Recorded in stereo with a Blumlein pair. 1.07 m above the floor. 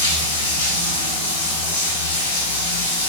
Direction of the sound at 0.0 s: 65° left.